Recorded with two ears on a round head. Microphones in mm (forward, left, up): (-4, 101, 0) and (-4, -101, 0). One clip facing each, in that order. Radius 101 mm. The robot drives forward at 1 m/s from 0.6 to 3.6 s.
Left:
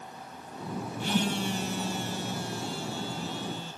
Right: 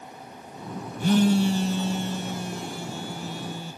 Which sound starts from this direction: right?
A phone buzzing, at 1.0 s.